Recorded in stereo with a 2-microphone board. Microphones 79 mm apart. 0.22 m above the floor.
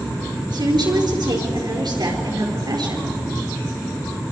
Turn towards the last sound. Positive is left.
turn(degrees=-70)  # may be behind; listen again after turning